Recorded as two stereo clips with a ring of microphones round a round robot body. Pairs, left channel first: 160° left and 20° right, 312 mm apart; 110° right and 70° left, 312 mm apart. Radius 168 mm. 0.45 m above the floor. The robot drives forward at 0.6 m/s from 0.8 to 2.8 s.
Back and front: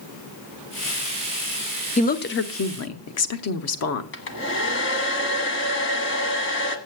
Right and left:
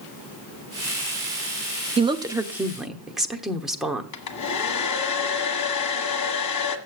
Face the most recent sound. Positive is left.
turn(degrees=-150)